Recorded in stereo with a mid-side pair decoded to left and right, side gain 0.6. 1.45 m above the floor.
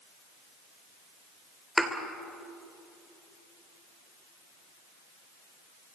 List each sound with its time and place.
1.8 s a thud: 5° right, 3 m